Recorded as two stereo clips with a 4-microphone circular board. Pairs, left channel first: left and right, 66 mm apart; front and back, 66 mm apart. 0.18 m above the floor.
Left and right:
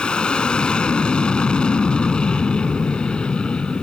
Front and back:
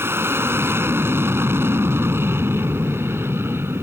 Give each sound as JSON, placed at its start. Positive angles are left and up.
{"t": 0.0, "sound": "an aircraft", "azimuth_deg": 160}